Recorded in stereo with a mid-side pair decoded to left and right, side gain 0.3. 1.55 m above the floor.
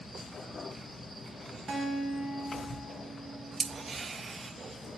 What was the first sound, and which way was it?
A guitar, 45° right.